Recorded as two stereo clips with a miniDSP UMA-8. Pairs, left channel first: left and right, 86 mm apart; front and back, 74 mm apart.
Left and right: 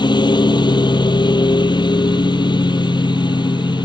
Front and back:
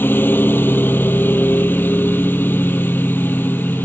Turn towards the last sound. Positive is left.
turn(degrees=60)